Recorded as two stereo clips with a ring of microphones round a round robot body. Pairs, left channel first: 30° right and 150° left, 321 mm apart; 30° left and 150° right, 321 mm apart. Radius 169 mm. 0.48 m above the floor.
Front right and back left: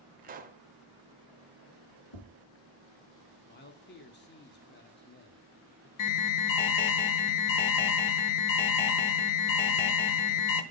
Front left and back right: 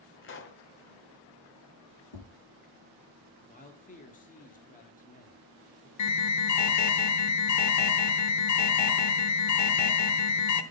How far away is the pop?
About 0.9 m.